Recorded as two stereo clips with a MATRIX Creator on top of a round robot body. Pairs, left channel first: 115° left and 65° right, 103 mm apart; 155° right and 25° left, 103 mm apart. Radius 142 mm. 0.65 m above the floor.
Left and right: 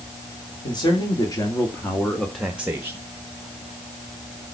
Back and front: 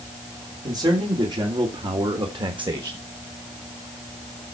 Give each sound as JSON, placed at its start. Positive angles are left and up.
{"t": 0.6, "sound": "a man speaking", "azimuth_deg": 70, "distance_m": 3.0}